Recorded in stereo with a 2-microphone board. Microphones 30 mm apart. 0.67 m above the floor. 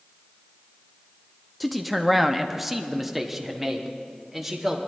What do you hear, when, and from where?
1.6 s a man speaking: centre (ahead or behind), 0.7 m; by 4.8 s 5° right (ahead or behind), 2 m